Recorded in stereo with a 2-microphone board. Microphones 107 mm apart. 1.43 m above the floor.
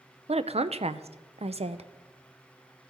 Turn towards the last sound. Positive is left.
turn(degrees=-75)  # may be behind; listen again after turning